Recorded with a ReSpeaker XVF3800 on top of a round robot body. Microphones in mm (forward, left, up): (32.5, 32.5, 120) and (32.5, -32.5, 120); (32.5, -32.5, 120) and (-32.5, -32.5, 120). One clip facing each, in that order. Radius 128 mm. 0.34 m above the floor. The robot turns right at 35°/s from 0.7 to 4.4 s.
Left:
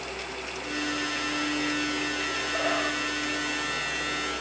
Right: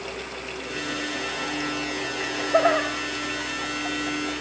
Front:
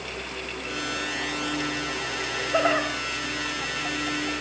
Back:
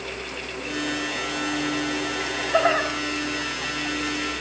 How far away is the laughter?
About 2.5 m.